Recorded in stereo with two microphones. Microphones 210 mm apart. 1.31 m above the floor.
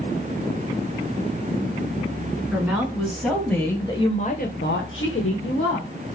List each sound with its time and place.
2.5 s a woman speaking: 10° right (ahead or behind), 2 m; by 5.9 s 75° left (ahead or behind), 1.6 m